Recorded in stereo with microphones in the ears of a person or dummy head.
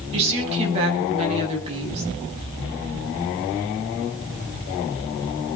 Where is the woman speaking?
35° right (ahead or behind), 7.5 m.